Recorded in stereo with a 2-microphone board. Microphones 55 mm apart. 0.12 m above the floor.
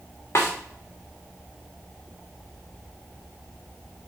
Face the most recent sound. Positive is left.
turn(degrees=55)  # may be behind; listen again after turning